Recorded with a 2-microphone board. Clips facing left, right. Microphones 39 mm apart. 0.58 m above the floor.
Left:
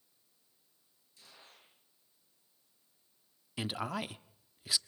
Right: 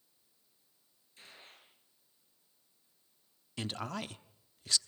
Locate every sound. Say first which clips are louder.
1.2 s a gunshot: right 3 dB; 40° right (ahead or behind), 8.5 m
3.6 s a man speaking: left 2 dB; 10° left (ahead or behind), 0.8 m